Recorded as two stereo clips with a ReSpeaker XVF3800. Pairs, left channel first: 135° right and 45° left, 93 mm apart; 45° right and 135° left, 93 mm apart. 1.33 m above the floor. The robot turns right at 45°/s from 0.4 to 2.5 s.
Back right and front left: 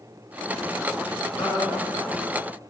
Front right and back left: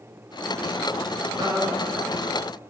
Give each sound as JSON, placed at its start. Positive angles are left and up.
{"t": 1.4, "sound": "a man speaking", "azimuth_deg": 180, "distance_m": 2.5}